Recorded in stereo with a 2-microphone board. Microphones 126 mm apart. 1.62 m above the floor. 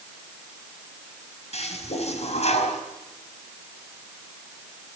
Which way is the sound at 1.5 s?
65° left (ahead or behind).